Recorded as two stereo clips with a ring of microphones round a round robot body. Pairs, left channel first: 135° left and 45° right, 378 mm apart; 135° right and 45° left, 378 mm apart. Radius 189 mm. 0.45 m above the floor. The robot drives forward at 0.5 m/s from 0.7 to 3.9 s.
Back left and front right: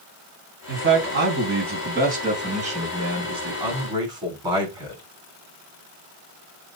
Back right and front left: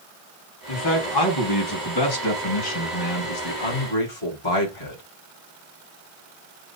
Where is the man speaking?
100° right, 4 m; by 5.0 s 125° right, 4.5 m.